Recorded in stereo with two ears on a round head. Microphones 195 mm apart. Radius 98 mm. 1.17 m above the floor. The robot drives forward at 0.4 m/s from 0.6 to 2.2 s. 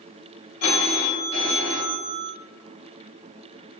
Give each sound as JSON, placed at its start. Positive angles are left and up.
{"t": 0.6, "sound": "a phone ringing", "side_deg": 85, "distance_m": 0.7}